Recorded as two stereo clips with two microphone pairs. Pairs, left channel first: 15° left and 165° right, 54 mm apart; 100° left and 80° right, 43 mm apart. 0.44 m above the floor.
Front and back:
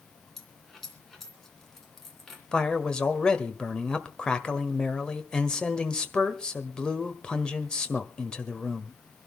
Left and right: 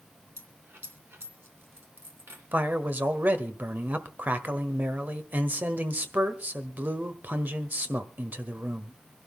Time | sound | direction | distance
0.4 | a dropped coin | 70° right | 2.5 m
2.5 | a man speaking | 55° right | 1.5 m